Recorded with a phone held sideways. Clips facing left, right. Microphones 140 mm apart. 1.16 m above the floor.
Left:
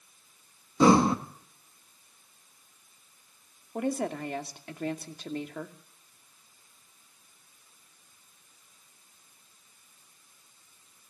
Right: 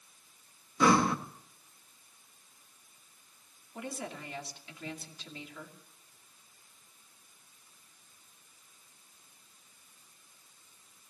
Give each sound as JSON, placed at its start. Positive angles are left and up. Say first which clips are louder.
{"t": 0.8, "sound": "breathing", "louder": "left 5 dB", "side_deg": 30, "distance_m": 1.4}
{"t": 3.8, "sound": "a woman speaking", "louder": "left 11 dB", "side_deg": 55, "distance_m": 2.5}